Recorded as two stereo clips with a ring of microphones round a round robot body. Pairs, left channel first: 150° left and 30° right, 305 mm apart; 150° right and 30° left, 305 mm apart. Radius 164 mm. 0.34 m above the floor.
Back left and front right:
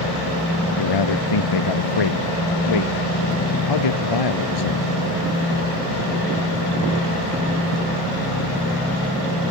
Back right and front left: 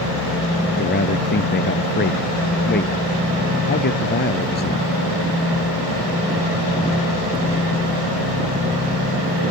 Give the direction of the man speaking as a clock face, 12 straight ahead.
7 o'clock.